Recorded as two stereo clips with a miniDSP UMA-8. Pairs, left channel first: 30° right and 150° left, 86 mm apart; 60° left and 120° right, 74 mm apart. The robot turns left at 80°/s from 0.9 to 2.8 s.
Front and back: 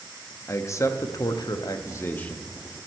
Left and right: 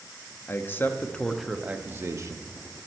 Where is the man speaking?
10° left, 0.6 m; by 2.8 s 140° right, 0.6 m.